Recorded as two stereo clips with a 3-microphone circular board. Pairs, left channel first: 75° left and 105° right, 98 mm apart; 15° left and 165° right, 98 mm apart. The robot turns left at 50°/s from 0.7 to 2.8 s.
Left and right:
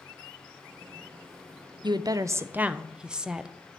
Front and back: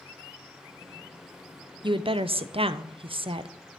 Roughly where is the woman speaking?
Behind right.